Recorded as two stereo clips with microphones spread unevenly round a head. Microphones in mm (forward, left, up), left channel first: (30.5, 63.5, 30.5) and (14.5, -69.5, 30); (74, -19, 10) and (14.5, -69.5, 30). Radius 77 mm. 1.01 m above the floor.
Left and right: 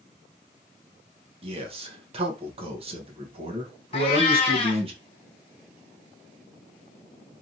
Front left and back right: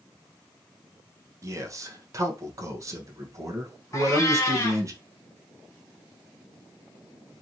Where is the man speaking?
95° right, 0.9 m.